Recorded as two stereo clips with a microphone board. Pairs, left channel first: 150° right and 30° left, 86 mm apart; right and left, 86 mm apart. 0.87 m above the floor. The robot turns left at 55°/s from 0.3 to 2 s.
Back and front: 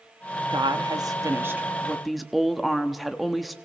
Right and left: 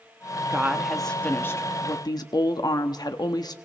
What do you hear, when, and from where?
0.5 s a woman speaking: 25° left, 1.2 m; by 3.5 s 60° right, 1.2 m